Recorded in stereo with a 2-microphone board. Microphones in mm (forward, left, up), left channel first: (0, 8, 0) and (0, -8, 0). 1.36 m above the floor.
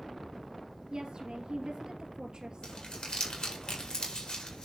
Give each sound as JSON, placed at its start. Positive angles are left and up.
{"t": 0.9, "sound": "a woman speaking", "side_deg": -55, "distance_m": 2.5}
{"t": 2.6, "sound": "crumpling", "side_deg": 65, "distance_m": 4.5}